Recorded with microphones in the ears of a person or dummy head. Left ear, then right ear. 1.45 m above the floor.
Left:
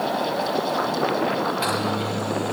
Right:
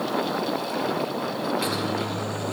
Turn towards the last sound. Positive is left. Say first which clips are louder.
# left 3 dB
turn(degrees=10)  # may be behind; listen again after turning